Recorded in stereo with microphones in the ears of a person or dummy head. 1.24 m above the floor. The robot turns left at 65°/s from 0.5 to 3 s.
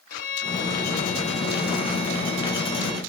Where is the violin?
45° left, 3 m; by 3.0 s 115° right, 3 m.